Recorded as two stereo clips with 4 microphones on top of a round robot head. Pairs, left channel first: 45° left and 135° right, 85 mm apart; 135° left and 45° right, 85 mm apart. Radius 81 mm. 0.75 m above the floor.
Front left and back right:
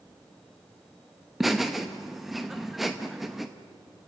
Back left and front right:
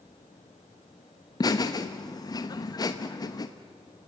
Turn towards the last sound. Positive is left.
turn(degrees=135)